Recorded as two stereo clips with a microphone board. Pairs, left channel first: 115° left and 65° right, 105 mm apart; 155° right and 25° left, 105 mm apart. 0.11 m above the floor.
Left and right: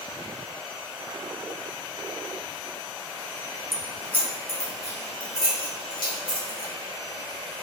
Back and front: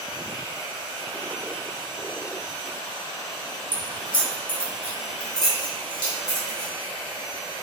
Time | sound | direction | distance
3.7 | keys jangling | 160° right | 1.1 m